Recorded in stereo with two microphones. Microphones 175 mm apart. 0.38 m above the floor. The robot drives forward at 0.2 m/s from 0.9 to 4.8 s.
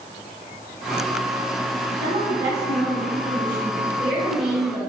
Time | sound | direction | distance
2.0 | a woman speaking | 50° right (ahead or behind) | 1.7 m